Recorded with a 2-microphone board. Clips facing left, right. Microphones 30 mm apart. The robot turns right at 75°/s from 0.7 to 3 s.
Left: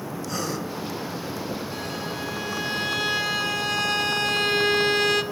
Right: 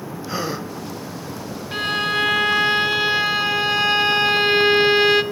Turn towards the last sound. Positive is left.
turn(degrees=-25)